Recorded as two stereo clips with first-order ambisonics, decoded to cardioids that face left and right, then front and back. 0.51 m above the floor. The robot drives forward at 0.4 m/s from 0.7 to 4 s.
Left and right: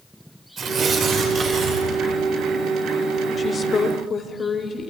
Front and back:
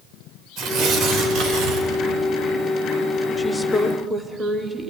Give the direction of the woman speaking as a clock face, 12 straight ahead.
10 o'clock.